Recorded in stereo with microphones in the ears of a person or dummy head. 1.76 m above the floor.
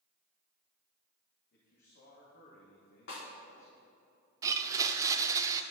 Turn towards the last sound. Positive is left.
turn(degrees=-20)  # may be behind; listen again after turning